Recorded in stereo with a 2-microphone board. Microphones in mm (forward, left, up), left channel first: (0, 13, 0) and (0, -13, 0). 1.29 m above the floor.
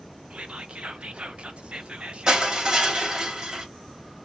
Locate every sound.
0.3 s whispering: 55° right (ahead or behind), 0.6 m
2.3 s crushing: 25° right (ahead or behind), 1.5 m